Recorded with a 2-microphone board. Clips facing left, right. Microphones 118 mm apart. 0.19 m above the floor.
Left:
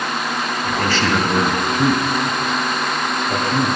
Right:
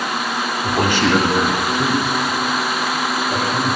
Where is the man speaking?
30° right (ahead or behind), 1.6 m; by 3.8 s 70° left (ahead or behind), 4 m.